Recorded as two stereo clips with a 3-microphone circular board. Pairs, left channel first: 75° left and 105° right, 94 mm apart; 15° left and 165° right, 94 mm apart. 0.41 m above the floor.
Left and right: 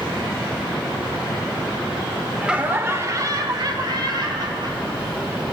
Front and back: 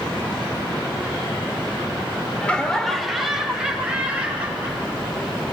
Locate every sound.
2.4 s laughter: 35° right, 0.8 m; by 5.5 s 95° right, 2.5 m